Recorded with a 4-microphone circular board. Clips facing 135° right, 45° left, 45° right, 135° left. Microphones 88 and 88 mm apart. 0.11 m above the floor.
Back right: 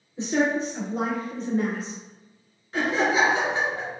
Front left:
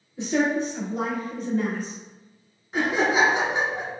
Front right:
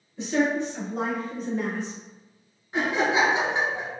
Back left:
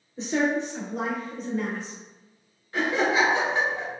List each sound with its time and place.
0.2 s a woman speaking: 175° left, 1.6 m; by 1.9 s 100° right, 1.4 m
2.7 s laughter: 10° right, 1.2 m